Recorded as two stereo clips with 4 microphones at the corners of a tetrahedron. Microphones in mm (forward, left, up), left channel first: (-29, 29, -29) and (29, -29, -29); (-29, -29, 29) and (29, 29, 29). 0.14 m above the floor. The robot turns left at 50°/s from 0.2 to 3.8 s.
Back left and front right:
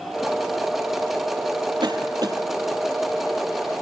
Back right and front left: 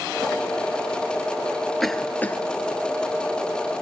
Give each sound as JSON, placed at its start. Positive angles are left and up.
{"t": 1.8, "sound": "a cough", "azimuth_deg": -50, "distance_m": 2.5}